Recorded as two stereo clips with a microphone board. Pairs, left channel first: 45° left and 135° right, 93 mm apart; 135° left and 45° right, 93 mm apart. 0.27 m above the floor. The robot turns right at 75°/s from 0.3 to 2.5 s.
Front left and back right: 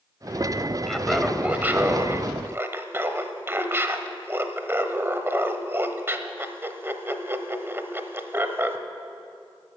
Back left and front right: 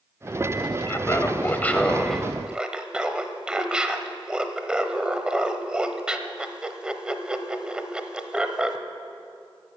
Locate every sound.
0.9 s laughter: 125° left, 1.0 m; by 8.8 s 110° right, 1.0 m